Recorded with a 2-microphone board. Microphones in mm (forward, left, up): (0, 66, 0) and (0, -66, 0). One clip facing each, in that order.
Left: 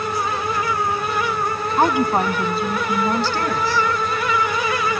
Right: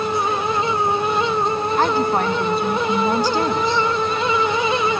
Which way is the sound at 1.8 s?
20° left (ahead or behind).